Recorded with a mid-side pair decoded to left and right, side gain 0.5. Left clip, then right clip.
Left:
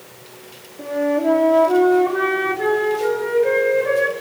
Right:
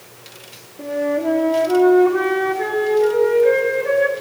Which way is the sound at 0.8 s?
5° left.